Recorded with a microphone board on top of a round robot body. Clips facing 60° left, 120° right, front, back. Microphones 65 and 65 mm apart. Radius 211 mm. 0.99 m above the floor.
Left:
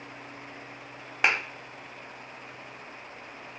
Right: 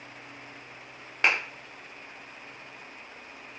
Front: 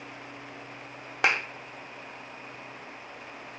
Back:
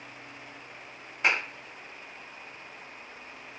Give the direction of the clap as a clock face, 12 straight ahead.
1 o'clock.